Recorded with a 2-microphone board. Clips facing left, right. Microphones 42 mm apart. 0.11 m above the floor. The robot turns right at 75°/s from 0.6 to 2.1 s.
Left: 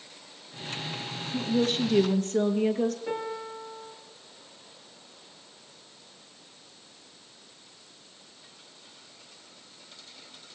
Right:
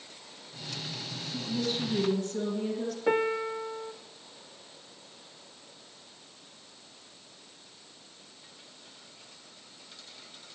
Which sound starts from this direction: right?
A piano, at 3.1 s.